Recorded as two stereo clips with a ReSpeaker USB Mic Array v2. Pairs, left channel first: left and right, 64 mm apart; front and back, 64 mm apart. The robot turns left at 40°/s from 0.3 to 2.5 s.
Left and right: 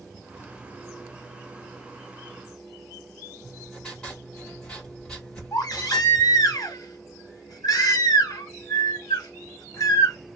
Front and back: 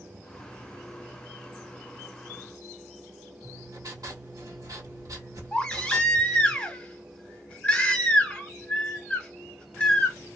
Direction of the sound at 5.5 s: 70° left.